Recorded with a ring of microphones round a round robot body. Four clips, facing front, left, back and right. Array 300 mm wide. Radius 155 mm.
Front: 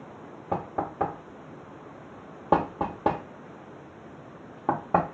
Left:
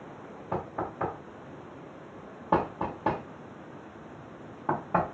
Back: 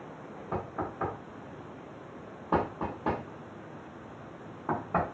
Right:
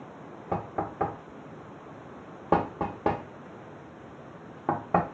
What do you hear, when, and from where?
0.5 s knocking: 35° right, 0.6 m